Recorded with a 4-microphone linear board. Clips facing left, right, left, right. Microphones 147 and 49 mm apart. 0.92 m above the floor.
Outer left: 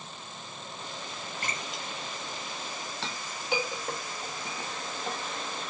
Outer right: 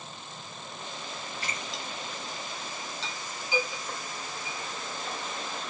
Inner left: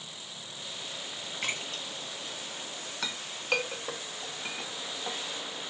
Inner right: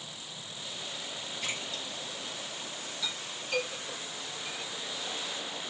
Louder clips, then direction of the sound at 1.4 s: Outer left 2 dB, inner left 3 dB; 50° left (ahead or behind).